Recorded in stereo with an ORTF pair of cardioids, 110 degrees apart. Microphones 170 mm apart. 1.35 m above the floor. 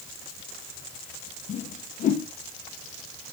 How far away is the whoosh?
About 0.6 m.